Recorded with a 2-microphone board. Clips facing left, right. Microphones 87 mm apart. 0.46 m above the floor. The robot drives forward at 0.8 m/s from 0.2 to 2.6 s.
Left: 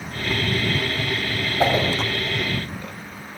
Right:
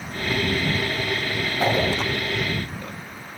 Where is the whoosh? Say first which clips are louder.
Left 2 dB; 30° left (ahead or behind), 2.5 m.